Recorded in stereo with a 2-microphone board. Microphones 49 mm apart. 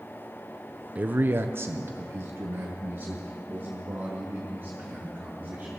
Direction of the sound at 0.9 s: 30° right (ahead or behind).